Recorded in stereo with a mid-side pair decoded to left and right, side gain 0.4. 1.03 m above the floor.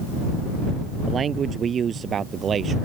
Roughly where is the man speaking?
Ahead right.